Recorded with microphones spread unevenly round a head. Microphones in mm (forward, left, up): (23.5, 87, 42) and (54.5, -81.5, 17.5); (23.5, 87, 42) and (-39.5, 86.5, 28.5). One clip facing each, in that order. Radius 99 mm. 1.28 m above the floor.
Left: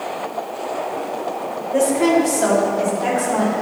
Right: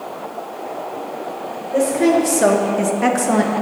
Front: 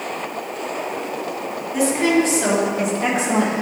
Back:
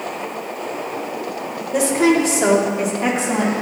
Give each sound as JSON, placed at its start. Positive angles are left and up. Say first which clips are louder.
{"t": 1.7, "sound": "a woman speaking", "louder": "right 1 dB, back 2 dB", "azimuth_deg": -165, "distance_m": 0.7}